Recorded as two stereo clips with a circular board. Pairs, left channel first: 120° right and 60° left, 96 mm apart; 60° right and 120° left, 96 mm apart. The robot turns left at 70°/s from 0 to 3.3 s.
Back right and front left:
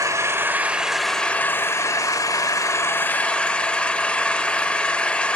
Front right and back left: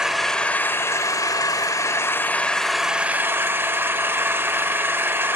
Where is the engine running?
40° left, 1.1 m; by 5.4 s 170° left, 1.1 m.